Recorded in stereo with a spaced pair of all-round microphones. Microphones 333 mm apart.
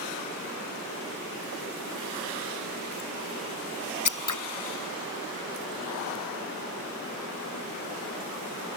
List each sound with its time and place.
4.0 s scissors: 60° left (ahead or behind)